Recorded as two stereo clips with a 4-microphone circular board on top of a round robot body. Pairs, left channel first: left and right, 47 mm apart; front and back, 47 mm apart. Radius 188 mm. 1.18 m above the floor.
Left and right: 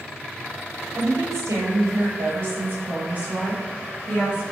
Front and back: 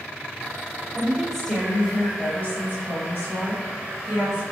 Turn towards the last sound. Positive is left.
turn(degrees=-25)